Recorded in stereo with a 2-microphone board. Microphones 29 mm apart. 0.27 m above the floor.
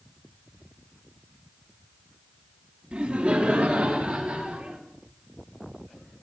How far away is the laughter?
About 2 m.